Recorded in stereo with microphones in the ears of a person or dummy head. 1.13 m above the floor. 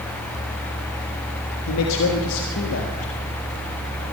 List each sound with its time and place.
1.7 s a man speaking: 75° left (ahead or behind), 1.6 m